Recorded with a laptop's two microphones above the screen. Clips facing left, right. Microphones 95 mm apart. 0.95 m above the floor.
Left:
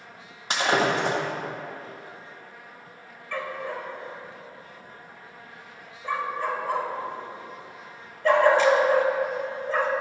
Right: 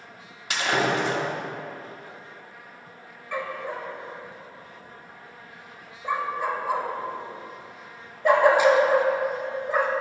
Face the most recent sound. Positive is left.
turn(degrees=-15)  # may be behind; listen again after turning